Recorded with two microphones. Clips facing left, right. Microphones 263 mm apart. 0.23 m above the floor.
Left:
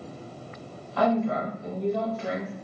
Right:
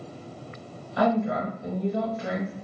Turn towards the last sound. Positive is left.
turn(degrees=-20)  # may be behind; listen again after turning